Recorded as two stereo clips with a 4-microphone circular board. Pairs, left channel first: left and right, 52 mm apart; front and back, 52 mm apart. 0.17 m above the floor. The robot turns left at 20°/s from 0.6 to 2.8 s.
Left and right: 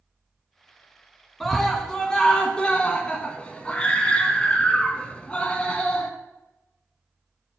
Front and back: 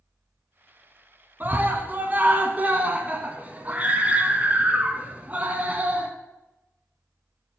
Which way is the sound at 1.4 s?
170° left.